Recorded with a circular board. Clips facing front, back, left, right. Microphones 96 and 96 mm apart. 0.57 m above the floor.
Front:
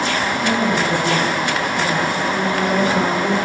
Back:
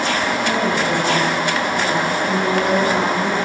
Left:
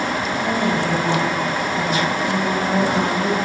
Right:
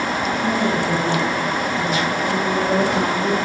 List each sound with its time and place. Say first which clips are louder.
0.4 s a woman speaking: front 1 dB, even; 110° left, 3.5 m